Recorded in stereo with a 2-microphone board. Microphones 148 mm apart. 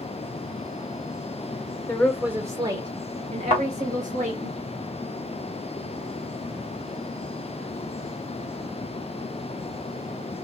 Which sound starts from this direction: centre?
A woman speaking, at 1.9 s.